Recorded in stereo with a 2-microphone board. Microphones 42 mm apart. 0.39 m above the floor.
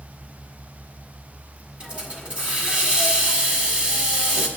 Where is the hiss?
25° right (ahead or behind), 1.8 m.